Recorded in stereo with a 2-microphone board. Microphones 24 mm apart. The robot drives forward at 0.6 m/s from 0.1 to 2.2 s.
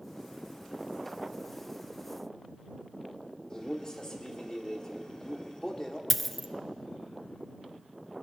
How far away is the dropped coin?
About 0.5 m.